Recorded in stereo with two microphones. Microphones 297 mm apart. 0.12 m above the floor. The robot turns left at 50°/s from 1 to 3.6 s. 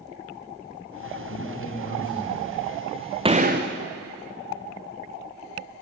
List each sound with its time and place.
1.3 s a man speaking: 50° left, 4 m; by 2.7 s 25° right, 4 m
3.2 s a gunshot: 15° right (ahead or behind), 1.9 m; by 3.7 s 35° right (ahead or behind), 1.9 m